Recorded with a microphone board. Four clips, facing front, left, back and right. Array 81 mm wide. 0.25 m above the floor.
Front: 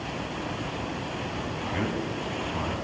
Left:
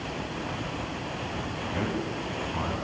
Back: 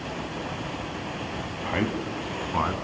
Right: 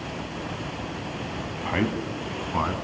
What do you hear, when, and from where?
1.6 s a man speaking: 115° right, 1.9 m; by 2.7 s 145° right, 2.5 m